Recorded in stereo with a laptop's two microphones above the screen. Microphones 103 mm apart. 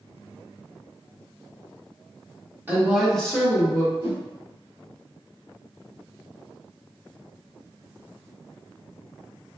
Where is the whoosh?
45° right (ahead or behind), 1.1 m.